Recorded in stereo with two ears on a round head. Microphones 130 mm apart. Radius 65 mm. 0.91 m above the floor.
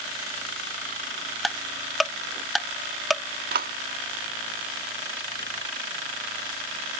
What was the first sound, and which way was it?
Ticking, centre (ahead or behind).